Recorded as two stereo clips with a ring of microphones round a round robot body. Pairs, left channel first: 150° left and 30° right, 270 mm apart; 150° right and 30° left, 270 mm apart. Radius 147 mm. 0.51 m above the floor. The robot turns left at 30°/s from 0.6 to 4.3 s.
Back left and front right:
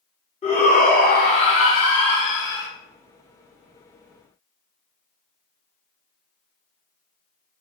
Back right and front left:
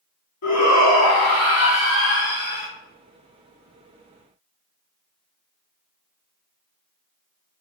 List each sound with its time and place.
0.4 s a shout: 145° right, 1.7 m; by 2.7 s 155° left, 1.7 m